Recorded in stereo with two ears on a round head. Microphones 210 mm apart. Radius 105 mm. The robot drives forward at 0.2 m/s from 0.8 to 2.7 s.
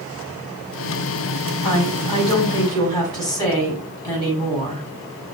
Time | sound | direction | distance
1.6 | a woman speaking | 15° left (ahead or behind) | 4.5 m